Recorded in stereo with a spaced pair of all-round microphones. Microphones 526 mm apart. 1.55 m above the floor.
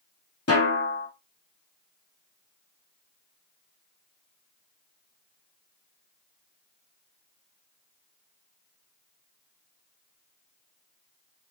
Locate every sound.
0.5 s a snare drum: 25° left (ahead or behind), 0.9 m